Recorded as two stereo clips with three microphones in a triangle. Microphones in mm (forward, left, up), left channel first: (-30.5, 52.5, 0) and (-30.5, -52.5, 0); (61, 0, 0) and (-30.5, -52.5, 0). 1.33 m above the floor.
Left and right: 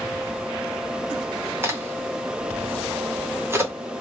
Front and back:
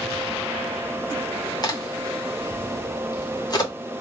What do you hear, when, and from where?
1.6 s a crack: 25° right, 0.8 m